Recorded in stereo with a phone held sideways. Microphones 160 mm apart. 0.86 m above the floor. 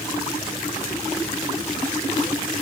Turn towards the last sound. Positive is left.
No sound to turn to.